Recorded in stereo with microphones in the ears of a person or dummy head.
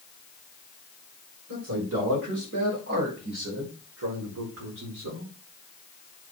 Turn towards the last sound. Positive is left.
turn(degrees=-80)